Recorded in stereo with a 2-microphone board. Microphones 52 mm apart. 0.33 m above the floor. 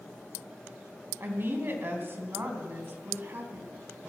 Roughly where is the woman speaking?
Right.